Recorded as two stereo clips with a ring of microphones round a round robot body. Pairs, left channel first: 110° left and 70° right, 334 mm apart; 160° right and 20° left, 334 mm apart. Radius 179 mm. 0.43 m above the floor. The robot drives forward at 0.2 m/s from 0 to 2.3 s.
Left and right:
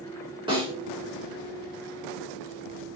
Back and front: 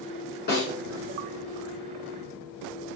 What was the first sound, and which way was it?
A snare drum, 130° right.